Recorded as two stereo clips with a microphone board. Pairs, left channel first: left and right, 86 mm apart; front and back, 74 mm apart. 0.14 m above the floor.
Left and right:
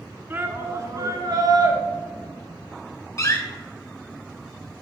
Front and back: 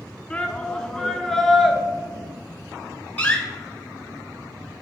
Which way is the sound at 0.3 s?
55° right.